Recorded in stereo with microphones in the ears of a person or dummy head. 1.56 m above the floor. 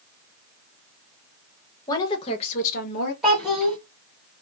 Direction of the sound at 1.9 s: 25° left (ahead or behind).